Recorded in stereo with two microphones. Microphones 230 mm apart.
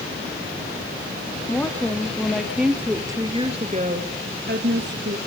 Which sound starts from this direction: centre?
A woman speaking, at 1.5 s.